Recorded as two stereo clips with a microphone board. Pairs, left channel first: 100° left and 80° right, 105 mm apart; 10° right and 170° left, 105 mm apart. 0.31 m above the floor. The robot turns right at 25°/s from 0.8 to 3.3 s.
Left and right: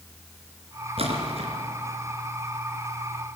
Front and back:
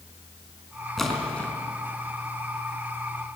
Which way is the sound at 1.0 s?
100° right.